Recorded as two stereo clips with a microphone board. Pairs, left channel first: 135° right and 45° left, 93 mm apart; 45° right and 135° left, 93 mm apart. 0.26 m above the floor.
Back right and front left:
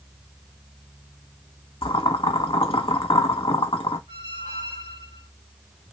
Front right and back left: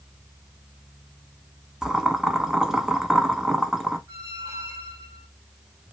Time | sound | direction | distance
1.8 | boiling | 140° right | 0.7 m
4.1 | a squeak | 85° left | 2 m